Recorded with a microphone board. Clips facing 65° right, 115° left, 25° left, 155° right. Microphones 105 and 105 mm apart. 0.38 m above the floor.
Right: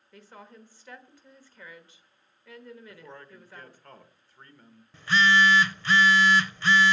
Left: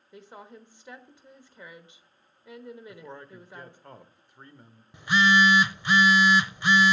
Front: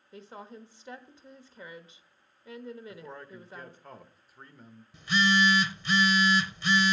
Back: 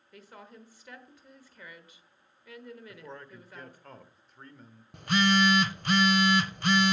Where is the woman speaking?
60° left, 1.1 m.